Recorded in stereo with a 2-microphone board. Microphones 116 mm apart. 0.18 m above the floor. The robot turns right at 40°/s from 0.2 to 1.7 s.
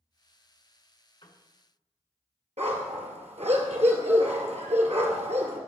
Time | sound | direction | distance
1.2 | a piano | 45° left (ahead or behind) | 1.4 m
2.6 | a dog barking | 70° right (ahead or behind) | 1.7 m